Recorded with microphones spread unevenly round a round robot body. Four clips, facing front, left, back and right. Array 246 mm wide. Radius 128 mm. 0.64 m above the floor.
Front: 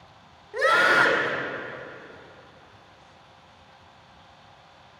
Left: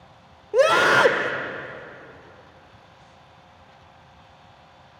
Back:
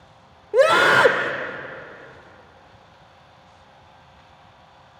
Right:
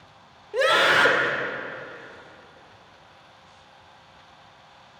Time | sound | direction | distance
0.5 | a scream | 155° left | 2 m